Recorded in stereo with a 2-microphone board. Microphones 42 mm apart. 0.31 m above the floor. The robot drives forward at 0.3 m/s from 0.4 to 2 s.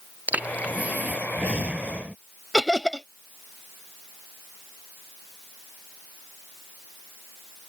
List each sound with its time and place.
0.3 s breathing: 45° right (ahead or behind); by 2.1 s 35° right (ahead or behind)
2.5 s laughter: centre (ahead or behind)